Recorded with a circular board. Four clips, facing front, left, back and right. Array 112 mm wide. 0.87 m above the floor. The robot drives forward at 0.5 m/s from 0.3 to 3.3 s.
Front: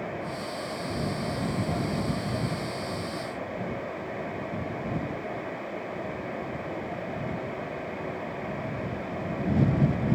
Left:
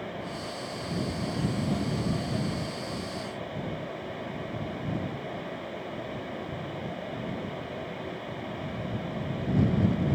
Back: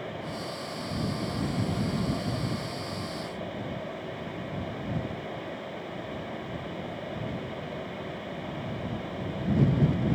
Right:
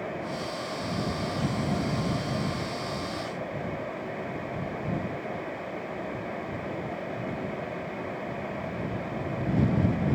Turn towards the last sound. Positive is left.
No sound to turn to.